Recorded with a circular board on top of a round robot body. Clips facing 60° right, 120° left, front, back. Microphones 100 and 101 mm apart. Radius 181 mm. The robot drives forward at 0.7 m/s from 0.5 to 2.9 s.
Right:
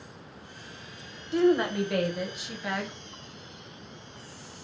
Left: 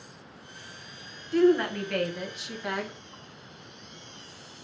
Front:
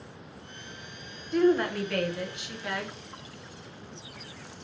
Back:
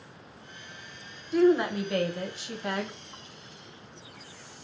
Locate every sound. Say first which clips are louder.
1.3 s a woman speaking: left 1 dB, back 1 dB; 95° right, 1.1 m; by 3.0 s 160° right, 1.6 m